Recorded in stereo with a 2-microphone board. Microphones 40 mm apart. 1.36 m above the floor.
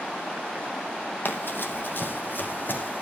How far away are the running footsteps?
About 3 m.